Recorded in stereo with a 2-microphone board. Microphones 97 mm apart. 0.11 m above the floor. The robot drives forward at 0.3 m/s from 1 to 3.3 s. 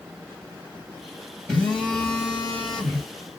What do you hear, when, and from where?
1.5 s a phone buzzing: 5° left (ahead or behind), 2 m